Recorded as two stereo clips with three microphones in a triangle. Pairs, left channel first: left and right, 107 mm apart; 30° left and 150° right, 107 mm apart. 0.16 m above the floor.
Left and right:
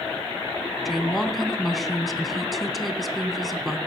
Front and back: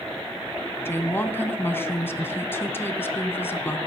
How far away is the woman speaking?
About 1.3 m.